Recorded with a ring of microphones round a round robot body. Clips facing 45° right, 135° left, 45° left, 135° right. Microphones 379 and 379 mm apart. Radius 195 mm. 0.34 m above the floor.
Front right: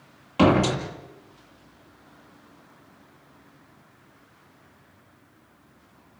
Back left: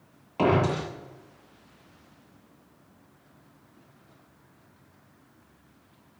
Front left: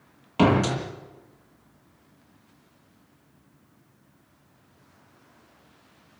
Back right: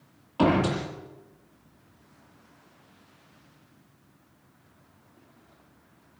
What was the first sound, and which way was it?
A door slam, 5° left.